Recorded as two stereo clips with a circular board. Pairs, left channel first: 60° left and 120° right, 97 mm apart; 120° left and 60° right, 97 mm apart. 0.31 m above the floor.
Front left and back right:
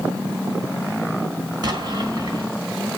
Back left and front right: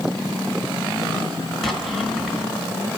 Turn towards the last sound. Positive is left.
turn(degrees=-155)